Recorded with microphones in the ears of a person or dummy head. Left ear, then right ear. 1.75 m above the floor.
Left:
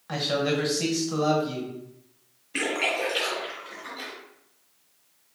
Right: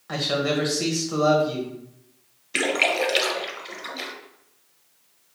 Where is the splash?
40° right (ahead or behind), 0.8 m.